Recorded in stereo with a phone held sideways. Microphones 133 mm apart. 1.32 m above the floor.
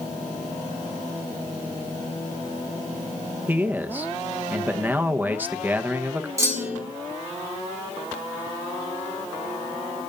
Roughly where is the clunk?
Right.